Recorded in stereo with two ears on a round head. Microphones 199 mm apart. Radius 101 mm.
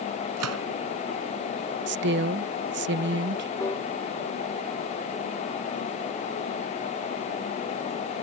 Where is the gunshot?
90° right.